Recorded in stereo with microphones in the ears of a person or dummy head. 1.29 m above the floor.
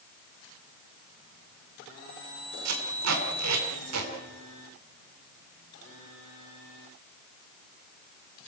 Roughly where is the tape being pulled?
Right.